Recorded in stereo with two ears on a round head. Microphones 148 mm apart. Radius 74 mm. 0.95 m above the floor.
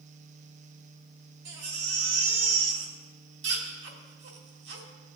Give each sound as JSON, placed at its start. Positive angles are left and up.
{"t": 1.4, "sound": "a baby crying", "side_deg": -80, "distance_m": 2.0}